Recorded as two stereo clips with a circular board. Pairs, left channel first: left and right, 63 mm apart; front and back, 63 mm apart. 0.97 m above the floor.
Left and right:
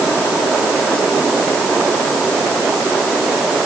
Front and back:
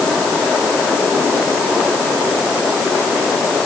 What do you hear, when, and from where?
Only background noise.